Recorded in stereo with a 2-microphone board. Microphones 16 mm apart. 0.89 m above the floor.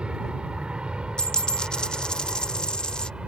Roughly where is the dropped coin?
Left.